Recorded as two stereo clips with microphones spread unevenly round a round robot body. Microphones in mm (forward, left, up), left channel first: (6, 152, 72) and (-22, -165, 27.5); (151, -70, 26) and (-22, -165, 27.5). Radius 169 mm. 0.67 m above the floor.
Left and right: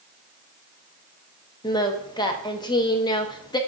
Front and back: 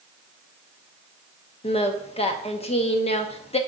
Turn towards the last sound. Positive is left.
turn(degrees=5)